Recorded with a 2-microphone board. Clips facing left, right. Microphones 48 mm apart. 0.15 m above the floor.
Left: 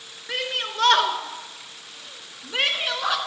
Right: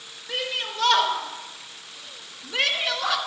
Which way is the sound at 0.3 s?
55° left (ahead or behind).